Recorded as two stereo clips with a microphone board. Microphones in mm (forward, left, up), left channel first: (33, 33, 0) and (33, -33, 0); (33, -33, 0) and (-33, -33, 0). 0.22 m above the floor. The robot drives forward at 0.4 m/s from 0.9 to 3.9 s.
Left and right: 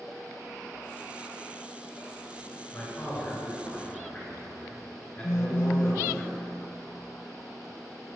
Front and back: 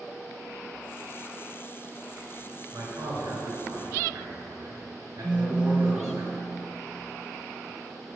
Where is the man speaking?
150° left, 2.5 m; by 6.2 s 155° left, 3 m.